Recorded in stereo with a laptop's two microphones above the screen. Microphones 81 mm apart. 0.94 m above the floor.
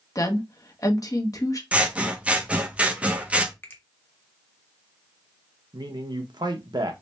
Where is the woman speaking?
45° left (ahead or behind), 1.0 m.